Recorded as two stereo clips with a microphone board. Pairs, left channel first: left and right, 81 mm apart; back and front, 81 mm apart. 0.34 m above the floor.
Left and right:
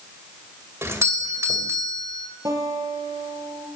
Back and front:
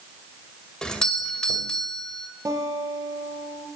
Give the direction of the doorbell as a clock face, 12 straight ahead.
4 o'clock.